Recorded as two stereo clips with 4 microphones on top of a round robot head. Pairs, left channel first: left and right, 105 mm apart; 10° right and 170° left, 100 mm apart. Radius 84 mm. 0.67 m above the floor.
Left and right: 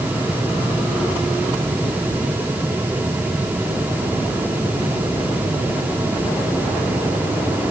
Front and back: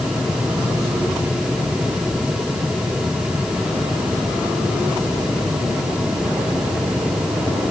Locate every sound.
Only background noise.